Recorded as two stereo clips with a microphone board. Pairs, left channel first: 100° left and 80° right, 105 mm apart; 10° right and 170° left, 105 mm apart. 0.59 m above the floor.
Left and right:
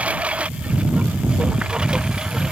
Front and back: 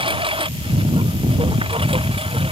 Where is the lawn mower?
155° right; by 2.5 s 165° right.